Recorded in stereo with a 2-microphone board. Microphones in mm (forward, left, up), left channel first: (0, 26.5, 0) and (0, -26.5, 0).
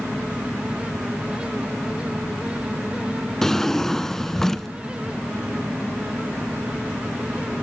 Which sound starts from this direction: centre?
A drawer, at 3.4 s.